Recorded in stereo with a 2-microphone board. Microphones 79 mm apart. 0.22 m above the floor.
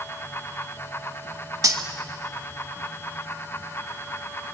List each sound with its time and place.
1.6 s cutlery clinking: 50° right (ahead or behind), 0.9 m